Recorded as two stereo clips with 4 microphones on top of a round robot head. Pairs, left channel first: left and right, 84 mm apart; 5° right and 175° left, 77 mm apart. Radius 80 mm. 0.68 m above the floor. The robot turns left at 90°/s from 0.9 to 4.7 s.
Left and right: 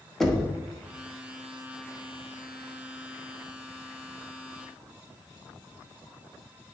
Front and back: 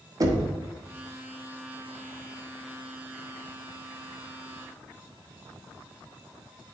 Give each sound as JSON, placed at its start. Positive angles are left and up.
{"t": 0.2, "sound": "knocking", "azimuth_deg": 175, "distance_m": 1.2}